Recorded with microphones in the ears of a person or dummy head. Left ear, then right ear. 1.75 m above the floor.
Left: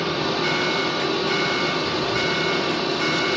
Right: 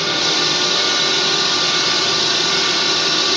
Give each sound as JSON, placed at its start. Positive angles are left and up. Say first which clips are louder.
{"t": 0.0, "sound": "a drone", "louder": "right 6 dB", "side_deg": -60}